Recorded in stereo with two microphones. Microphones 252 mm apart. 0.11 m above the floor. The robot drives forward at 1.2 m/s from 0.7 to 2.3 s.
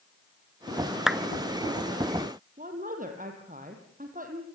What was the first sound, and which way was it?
A clap, centre (ahead or behind).